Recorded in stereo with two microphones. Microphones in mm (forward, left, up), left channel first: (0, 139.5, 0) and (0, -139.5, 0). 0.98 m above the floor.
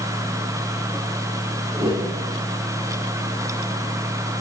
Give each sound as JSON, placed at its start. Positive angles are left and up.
{"t": 1.7, "sound": "a whoosh", "side_deg": -20, "distance_m": 3.5}